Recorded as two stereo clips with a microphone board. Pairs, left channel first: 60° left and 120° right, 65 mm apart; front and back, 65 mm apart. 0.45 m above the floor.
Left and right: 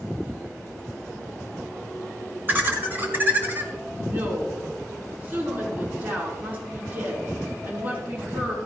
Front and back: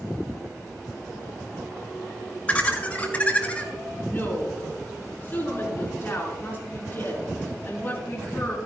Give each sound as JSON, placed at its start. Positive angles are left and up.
{"t": 2.5, "sound": "laughter", "azimuth_deg": -65, "distance_m": 2.0}
{"t": 4.0, "sound": "a woman speaking", "azimuth_deg": -60, "distance_m": 4.0}